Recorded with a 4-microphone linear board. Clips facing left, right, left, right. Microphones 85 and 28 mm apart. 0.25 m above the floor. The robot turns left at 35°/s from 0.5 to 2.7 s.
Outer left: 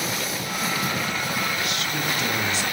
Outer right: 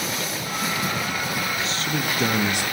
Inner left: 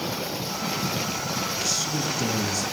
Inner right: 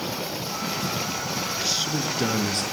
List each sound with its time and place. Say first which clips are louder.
1.6 s a man speaking: outer right 1 dB, inner right 1 dB; 30° right, 4 m; by 2.6 s 65° right, 4 m